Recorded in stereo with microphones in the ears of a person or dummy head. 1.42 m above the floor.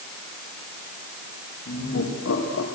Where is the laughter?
55° left (ahead or behind), 2.5 m; by 2.7 s 90° left, 2.0 m.